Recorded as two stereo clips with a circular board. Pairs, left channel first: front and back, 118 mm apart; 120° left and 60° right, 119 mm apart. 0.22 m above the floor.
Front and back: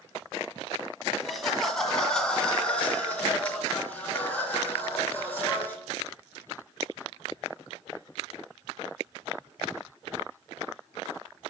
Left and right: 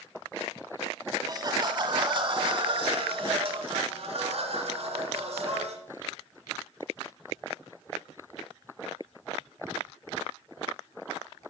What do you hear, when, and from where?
1.2 s laughter: 90° right, 1.5 m; by 5.8 s 75° right, 3.5 m